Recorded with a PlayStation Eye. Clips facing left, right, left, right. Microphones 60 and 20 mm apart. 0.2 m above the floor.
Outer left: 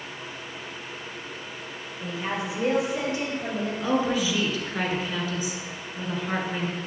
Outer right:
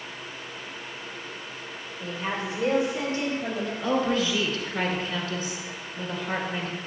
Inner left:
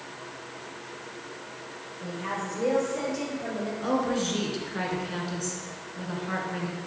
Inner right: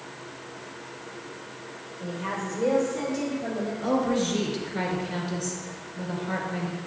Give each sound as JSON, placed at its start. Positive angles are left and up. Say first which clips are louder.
{"t": 2.0, "sound": "a woman speaking", "louder": "outer left 1 dB, inner right 1 dB", "side_deg": 5, "distance_m": 3.0}
{"t": 3.8, "sound": "a woman speaking", "louder": "even, inner right 2 dB", "side_deg": 10, "distance_m": 2.5}